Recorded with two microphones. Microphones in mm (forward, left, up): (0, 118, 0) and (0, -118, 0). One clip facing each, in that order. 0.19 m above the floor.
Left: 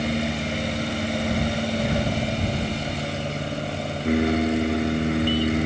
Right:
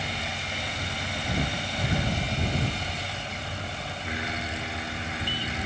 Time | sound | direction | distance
0.0 | an aircraft | 60° left (ahead or behind) | ?